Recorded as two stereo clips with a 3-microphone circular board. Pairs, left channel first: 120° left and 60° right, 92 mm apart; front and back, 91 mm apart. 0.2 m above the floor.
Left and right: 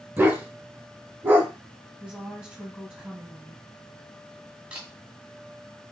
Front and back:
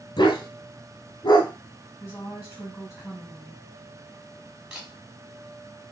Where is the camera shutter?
120° right, 1.4 m.